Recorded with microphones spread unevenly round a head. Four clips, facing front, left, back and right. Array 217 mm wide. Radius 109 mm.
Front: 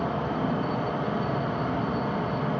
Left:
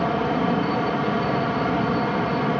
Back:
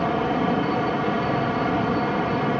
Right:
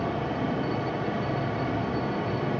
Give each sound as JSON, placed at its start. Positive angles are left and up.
{"t": 0.0, "sound": "a fan", "azimuth_deg": 100, "distance_m": 1.4}